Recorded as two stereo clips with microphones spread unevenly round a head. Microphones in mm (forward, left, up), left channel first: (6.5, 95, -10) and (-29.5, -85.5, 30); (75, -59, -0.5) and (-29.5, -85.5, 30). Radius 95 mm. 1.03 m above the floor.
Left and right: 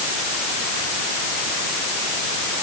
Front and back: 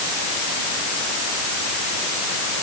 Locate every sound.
Only background noise.